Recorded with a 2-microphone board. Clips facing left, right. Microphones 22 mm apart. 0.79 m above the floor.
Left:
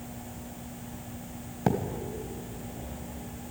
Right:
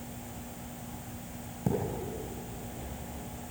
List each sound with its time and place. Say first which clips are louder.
1.7 s a thud: left 4 dB; 55° left (ahead or behind), 2 m